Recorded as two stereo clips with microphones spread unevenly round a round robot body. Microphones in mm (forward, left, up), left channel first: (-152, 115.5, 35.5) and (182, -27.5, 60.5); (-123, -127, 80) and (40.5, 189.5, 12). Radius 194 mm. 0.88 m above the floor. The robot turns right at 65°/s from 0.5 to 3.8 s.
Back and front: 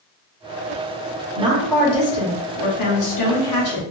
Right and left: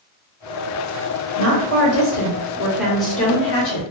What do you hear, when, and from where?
1.4 s a woman speaking: 50° left, 1.4 m; by 3.8 s 150° right, 1.4 m